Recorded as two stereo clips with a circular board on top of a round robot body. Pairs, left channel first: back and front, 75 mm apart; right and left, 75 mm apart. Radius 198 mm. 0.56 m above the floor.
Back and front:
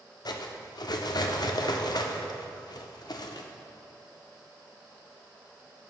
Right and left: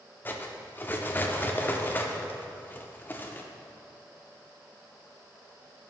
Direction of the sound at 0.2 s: 155° right.